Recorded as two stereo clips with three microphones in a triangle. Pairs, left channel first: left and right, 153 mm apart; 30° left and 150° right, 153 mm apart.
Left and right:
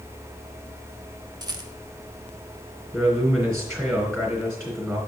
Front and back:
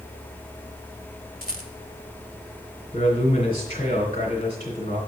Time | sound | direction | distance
1.4 | a rattle | 155° right | 1.0 m
2.9 | a man speaking | 20° right | 2.5 m